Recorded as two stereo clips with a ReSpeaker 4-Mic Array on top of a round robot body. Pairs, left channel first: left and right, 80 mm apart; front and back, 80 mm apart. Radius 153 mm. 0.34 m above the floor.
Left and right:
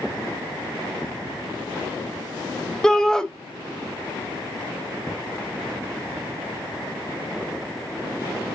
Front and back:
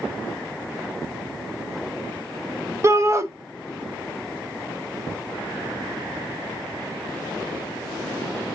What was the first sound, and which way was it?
A shout, 170° left.